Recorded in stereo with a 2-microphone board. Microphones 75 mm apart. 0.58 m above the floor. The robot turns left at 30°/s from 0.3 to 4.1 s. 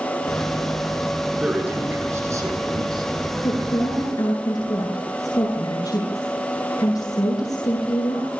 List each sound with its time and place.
1.4 s a man speaking: 10° right, 9 m; by 3.1 s 65° right, 9 m
3.4 s a woman speaking: 75° left (ahead or behind), 8.5 m; by 8.3 s 55° left (ahead or behind), 8.5 m